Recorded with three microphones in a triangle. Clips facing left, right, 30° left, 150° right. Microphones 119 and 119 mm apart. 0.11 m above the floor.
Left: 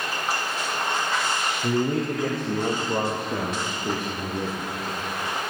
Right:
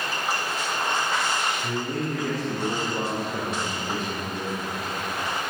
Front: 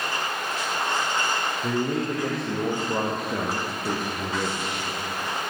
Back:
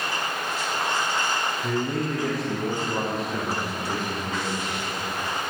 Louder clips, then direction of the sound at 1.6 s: Left 5 dB, front 2 dB; 100° left.